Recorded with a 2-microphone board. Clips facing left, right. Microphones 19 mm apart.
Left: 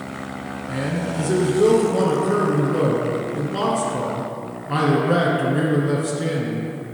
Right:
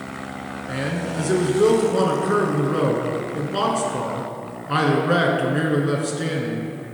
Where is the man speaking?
20° right (ahead or behind), 1.1 m.